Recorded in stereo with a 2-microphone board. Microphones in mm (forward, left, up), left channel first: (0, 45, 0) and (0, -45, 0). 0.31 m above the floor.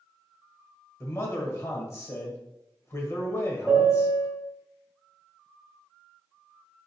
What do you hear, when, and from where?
1.0 s a man speaking: 30° left (ahead or behind), 1.0 m
3.7 s a piano: 15° right (ahead or behind), 1.6 m